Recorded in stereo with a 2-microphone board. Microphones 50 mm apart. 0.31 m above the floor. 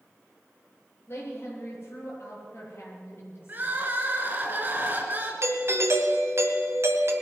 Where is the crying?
35° right (ahead or behind), 2.5 m.